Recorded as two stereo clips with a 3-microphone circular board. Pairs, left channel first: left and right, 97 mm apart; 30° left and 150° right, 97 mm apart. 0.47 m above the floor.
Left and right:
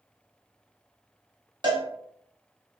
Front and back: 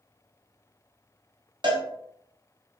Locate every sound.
1.6 s a cowbell: 120° right, 0.9 m